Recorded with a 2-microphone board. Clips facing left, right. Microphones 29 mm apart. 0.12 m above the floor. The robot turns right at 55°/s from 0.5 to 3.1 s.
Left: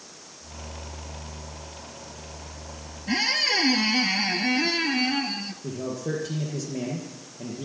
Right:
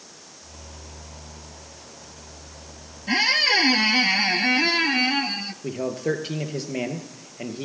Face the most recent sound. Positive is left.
turn(degrees=-55)  # may be behind; listen again after turning